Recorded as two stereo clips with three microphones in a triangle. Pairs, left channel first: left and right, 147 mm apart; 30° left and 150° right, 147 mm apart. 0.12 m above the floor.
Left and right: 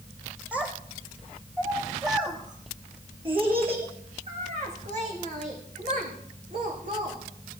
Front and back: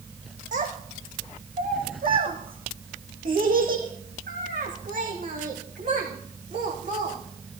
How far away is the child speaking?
About 3.5 m.